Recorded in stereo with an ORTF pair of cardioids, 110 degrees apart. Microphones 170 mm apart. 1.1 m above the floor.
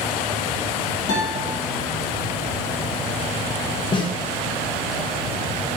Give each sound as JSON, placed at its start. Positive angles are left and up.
{"t": 1.1, "sound": "a guitar", "azimuth_deg": 60, "distance_m": 1.2}
{"t": 3.9, "sound": "a snare drum", "azimuth_deg": 30, "distance_m": 0.7}